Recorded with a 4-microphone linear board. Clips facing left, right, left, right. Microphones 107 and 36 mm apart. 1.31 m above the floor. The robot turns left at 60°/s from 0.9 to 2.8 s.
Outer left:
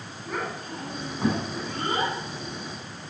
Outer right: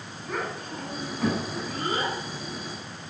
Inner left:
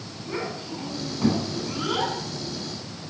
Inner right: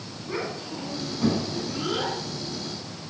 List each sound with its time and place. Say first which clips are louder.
0.2 s a child speaking: even, even; centre (ahead or behind), 7 m; by 2.1 s 75° left (ahead or behind), 7 m